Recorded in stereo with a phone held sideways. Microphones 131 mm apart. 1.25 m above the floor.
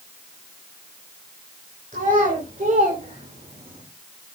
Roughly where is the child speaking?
Right.